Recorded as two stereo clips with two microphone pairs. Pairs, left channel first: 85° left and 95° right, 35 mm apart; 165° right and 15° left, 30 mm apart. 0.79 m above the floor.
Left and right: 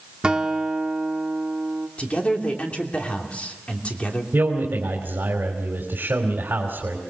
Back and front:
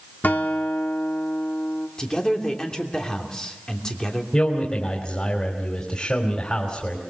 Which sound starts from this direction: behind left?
A man speaking, at 2.0 s.